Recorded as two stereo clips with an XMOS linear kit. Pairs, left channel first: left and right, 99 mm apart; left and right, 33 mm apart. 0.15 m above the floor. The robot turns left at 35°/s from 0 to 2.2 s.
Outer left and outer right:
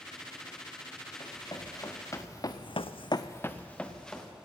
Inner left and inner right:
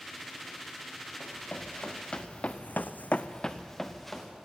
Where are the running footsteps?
50° left (ahead or behind), 3 m; by 4.3 s 5° left (ahead or behind), 2 m.